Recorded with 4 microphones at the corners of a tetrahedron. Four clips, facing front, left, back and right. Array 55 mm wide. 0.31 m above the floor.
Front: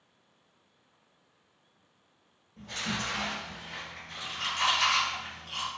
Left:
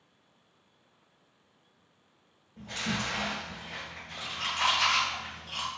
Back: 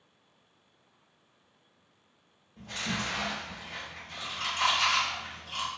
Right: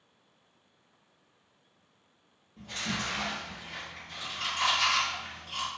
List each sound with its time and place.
2.6 s chewing: 95° left, 1.4 m